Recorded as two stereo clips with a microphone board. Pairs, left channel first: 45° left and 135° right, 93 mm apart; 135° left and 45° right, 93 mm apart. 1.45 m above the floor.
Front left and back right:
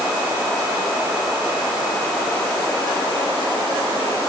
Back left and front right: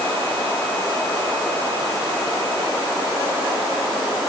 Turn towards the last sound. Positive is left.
No sound to turn to.